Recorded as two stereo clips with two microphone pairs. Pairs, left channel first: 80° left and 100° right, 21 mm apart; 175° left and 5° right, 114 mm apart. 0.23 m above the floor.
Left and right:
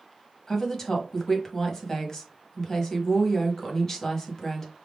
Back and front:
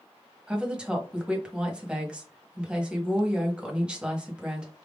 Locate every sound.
0.5 s a woman speaking: 60° left, 1.0 m